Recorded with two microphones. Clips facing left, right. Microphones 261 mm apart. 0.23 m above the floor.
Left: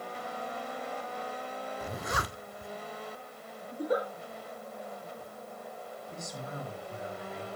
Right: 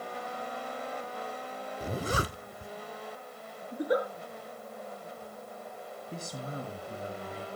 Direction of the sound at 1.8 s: 30° right (ahead or behind).